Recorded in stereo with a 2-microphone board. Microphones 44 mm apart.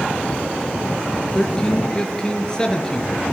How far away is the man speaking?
About 4.5 m.